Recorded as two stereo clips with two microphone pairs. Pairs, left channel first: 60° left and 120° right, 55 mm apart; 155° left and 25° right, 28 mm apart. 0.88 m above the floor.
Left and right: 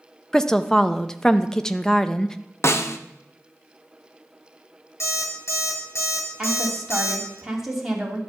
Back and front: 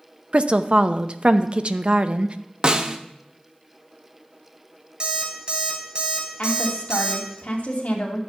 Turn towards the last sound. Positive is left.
turn(degrees=160)